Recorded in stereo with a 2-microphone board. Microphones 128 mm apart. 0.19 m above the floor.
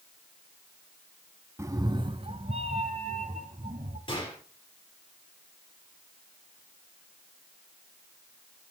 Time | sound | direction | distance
1.6 | a cat meowing | 25° right (ahead or behind) | 0.5 m
4.1 | a gunshot | 40° left (ahead or behind) | 5.5 m